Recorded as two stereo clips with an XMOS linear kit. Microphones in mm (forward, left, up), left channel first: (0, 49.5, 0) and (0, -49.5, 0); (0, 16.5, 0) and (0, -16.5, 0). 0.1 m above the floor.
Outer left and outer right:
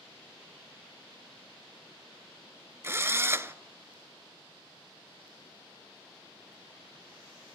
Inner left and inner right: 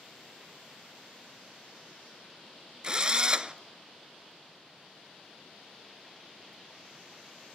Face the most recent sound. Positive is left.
turn(degrees=-25)  # may be behind; listen again after turning